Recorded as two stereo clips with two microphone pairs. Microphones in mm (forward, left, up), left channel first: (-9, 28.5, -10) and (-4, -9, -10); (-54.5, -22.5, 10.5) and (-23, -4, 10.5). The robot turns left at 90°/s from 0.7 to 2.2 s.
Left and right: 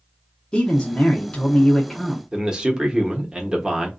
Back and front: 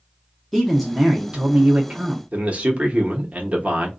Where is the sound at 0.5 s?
140° left, 0.8 m; by 2.2 s 5° left, 0.8 m.